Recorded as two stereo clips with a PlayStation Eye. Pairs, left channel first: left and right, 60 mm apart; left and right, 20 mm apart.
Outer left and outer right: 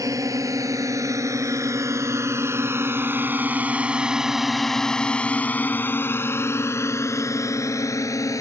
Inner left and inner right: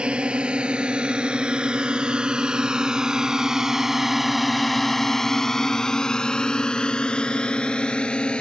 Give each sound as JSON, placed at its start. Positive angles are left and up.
{"t": 0.0, "sound": "a drone", "side_deg": -65}